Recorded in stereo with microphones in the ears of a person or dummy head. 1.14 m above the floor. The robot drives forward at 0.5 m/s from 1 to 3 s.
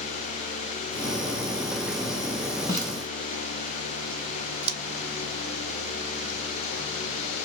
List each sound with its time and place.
2.7 s a snare drum: 35° left (ahead or behind), 2 m; by 2.9 s 30° left (ahead or behind), 2 m
4.6 s scissors: 60° right (ahead or behind), 0.9 m